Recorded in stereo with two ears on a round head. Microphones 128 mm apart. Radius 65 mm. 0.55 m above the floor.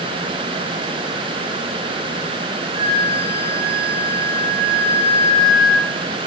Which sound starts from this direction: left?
A flute, at 2.8 s.